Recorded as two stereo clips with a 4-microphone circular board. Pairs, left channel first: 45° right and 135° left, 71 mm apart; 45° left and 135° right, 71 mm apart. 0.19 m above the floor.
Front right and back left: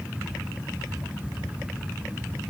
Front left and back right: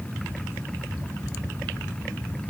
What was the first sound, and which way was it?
Only background noise.